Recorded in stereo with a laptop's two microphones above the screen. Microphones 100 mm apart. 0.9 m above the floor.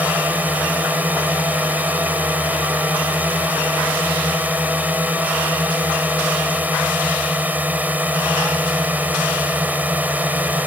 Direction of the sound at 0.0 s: 15° right (ahead or behind).